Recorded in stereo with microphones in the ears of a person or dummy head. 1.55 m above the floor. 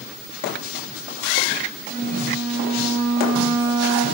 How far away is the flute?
About 1.1 m.